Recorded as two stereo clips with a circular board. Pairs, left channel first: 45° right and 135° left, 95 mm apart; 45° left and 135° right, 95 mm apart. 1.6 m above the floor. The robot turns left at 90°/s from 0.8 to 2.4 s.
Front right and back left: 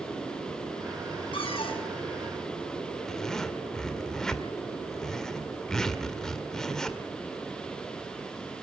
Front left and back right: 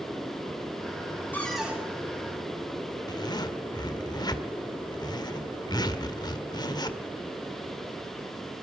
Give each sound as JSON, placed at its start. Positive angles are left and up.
{"t": 1.3, "sound": "a cupboard door", "azimuth_deg": -25, "distance_m": 6.5}
{"t": 3.1, "sound": "a zipper", "azimuth_deg": 35, "distance_m": 1.7}